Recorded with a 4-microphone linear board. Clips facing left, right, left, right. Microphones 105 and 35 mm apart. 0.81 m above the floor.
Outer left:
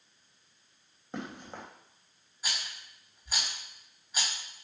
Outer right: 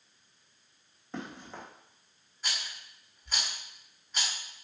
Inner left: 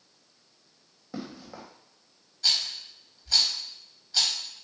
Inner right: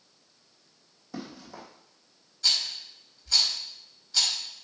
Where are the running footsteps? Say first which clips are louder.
Outer left 1 dB, inner left 1 dB; 20° left (ahead or behind), 2.5 m.